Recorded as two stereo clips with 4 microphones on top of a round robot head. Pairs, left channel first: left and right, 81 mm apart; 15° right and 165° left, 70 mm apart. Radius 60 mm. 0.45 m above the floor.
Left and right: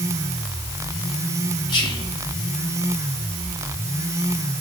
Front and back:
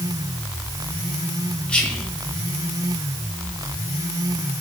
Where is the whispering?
60° left, 3 m.